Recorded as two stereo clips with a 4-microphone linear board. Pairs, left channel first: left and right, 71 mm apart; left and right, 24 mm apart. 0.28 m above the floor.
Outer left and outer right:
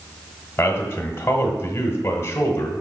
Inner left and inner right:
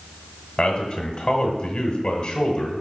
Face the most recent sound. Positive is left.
turn(degrees=35)  # may be behind; listen again after turning